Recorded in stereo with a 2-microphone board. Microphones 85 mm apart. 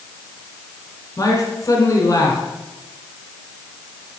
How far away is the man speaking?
About 1.7 m.